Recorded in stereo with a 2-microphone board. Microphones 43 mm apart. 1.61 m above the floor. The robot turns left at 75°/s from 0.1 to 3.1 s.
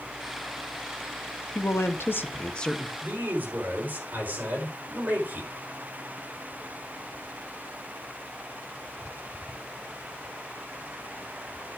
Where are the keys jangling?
I don't hear keys jangling.